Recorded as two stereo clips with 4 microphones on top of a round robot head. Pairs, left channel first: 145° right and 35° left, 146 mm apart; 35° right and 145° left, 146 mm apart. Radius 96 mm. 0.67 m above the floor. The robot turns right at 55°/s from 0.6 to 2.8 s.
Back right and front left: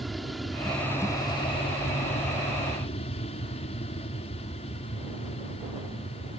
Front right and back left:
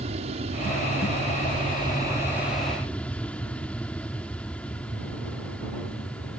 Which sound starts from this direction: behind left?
An aircraft, at 0.0 s.